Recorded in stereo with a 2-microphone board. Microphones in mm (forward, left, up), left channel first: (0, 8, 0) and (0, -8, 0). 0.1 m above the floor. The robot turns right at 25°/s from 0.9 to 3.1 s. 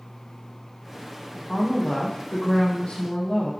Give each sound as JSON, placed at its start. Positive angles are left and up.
{"t": 1.5, "sound": "a woman speaking", "azimuth_deg": 55, "distance_m": 3.0}